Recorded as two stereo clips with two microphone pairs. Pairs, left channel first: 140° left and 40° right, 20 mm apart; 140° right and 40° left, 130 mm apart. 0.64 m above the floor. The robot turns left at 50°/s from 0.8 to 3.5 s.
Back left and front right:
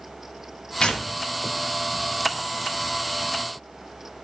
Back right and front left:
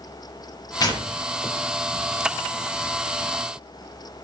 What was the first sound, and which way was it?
Tearing paper, 170° left.